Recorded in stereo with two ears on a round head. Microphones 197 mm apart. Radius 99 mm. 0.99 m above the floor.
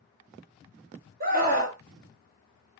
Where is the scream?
40° right (ahead or behind), 1.7 m.